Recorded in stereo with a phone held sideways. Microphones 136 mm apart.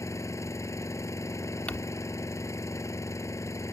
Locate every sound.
0.0 s an engine running: 20° left (ahead or behind)
1.7 s crumpling: 10° left (ahead or behind)